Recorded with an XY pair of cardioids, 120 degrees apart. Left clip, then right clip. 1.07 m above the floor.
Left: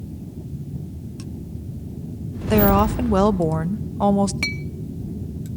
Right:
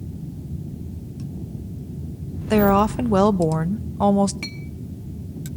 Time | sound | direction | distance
2.5 | a woman speaking | 5° right | 0.8 m
4.4 | a clink | 40° left | 1.4 m